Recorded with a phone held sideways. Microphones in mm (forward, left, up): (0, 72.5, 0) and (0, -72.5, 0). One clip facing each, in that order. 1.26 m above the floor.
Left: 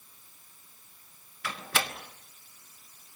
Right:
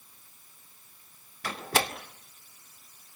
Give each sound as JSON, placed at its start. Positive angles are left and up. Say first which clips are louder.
{"t": 1.4, "sound": "a door slam", "louder": "right 4 dB", "side_deg": -40, "distance_m": 1.9}